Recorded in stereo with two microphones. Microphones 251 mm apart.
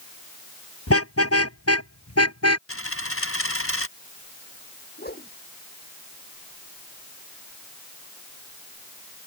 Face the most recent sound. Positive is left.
turn(degrees=40)  # may be behind; listen again after turning